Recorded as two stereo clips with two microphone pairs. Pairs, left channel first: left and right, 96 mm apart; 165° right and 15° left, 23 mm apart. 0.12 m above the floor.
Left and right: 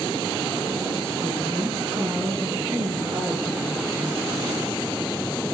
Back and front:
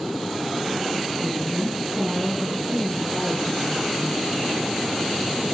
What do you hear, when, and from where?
1.2 s a woman speaking: 70° right, 1.1 m; by 4.8 s 30° right, 2.5 m